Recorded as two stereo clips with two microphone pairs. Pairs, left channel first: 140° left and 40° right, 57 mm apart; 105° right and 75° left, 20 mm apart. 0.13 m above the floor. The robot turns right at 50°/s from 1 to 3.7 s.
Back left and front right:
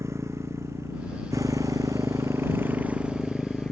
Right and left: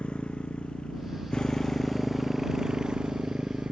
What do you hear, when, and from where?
0.0 s a motorcycle: 75° right; by 3.7 s 60° left